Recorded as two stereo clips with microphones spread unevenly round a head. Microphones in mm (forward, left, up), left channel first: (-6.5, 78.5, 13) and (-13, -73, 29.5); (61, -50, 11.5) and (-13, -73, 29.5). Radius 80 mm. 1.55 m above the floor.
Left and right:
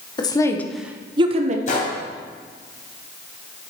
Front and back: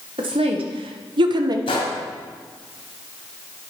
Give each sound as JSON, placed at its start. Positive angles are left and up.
{"t": 0.2, "sound": "a woman speaking", "azimuth_deg": 150, "distance_m": 1.4}
{"t": 1.7, "sound": "a gunshot", "azimuth_deg": 45, "distance_m": 3.0}